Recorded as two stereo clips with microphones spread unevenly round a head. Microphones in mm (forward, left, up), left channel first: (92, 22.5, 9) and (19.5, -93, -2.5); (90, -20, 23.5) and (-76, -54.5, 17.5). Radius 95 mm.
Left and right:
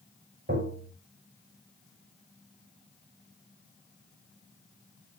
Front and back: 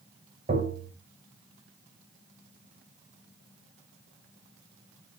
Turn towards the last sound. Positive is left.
turn(degrees=-115)